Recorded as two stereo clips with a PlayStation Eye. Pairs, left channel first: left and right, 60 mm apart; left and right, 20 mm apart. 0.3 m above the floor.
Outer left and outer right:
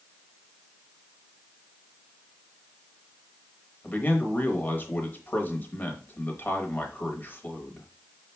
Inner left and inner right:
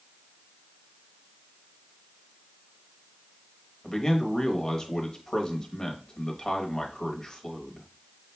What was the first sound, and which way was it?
A man speaking, 35° left (ahead or behind).